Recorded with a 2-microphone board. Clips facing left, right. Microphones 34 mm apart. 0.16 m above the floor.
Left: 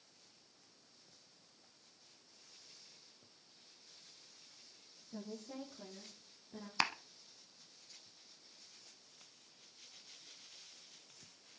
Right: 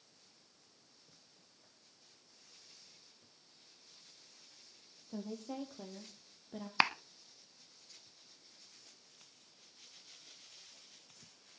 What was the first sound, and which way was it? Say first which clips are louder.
A woman speaking: right 5 dB; 70° right (ahead or behind).